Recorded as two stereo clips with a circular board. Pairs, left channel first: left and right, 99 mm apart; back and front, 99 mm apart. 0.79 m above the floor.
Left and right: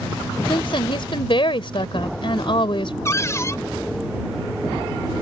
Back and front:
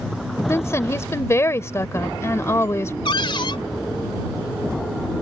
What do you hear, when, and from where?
0.5 s a woman speaking: 120° left
3.0 s a cupboard door: 150° left